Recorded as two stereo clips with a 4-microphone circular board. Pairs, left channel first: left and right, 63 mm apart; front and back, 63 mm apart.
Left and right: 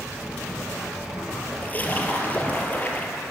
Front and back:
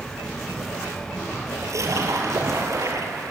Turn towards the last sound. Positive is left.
turn(degrees=150)